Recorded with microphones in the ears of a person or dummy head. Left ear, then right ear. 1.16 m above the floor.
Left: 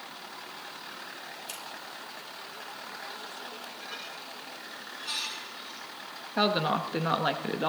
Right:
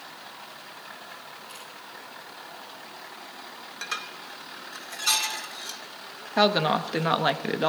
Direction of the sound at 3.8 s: 65° right (ahead or behind).